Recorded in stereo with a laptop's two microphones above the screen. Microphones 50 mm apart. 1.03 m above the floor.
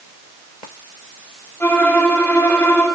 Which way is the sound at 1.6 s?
40° left (ahead or behind).